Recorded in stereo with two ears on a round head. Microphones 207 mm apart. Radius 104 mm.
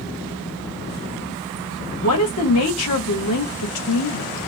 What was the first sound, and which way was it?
A woman speaking, 75° left (ahead or behind).